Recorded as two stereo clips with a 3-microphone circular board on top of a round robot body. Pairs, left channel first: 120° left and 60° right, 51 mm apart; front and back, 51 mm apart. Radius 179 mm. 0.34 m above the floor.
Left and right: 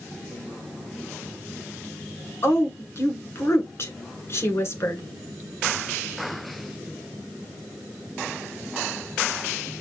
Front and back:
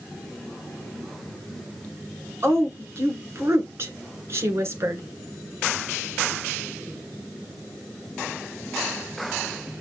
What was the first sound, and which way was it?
A woman speaking, 145° left.